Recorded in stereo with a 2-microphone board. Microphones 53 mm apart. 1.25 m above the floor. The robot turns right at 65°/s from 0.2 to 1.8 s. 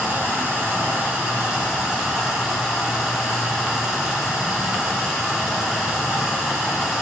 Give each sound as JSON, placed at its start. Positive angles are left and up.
{"t": 0.0, "sound": "running water", "azimuth_deg": -115, "distance_m": 0.9}